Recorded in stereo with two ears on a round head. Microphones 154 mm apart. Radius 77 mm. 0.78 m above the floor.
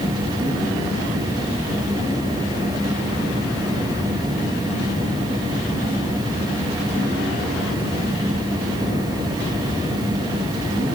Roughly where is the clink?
No clink in this recording.